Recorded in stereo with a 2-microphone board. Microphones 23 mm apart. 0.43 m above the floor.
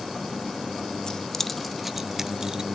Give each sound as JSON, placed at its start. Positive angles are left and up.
{"t": 1.1, "sound": "keys jangling", "side_deg": 35, "distance_m": 0.6}